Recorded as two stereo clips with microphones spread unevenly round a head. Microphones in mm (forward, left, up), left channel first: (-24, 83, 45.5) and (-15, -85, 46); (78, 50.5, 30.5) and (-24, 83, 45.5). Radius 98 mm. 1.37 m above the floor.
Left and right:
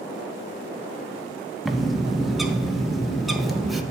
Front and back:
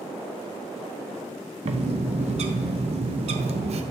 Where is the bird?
175° right, 0.7 m.